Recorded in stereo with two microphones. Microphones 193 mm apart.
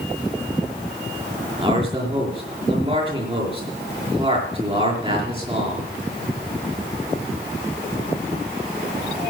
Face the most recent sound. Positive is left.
turn(degrees=-30)  # may be behind; listen again after turning